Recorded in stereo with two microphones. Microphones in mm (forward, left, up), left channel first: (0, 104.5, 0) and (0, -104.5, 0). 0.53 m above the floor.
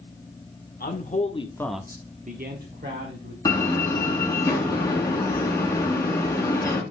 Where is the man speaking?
45° left (ahead or behind), 1.4 m; by 3.4 s 60° right (ahead or behind), 2 m.